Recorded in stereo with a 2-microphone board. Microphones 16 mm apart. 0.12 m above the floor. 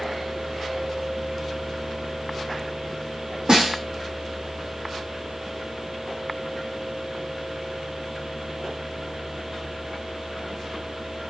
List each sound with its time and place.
3.5 s a snare drum: 60° right (ahead or behind), 1.7 m